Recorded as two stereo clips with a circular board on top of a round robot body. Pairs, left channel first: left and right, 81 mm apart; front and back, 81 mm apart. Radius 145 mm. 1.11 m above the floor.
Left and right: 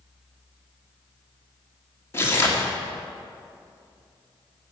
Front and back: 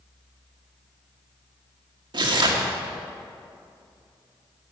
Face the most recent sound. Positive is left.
turn(degrees=150)